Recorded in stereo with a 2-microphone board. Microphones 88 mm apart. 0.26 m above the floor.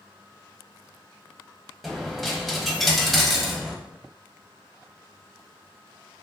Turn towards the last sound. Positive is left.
turn(degrees=0)  # may be behind; listen again after turning